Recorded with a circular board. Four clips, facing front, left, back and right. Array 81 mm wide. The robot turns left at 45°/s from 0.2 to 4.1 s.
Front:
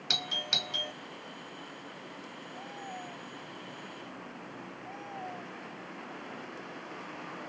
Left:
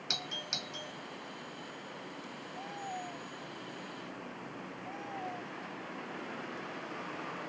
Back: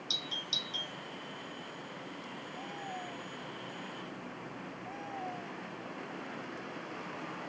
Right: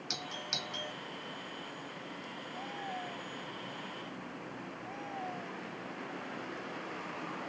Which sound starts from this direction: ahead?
A doorbell, at 0.1 s.